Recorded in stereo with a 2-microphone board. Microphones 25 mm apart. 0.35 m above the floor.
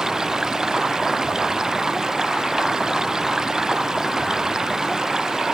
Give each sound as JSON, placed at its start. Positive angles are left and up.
{"t": 0.0, "sound": "running water", "side_deg": -25}